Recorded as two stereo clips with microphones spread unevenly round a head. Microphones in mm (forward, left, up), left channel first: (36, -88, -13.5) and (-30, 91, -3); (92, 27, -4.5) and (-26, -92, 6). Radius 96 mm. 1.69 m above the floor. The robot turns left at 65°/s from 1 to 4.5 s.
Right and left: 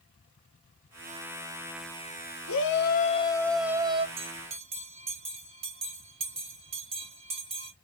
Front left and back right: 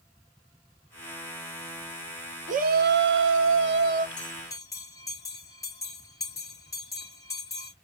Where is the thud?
No thud in this recording.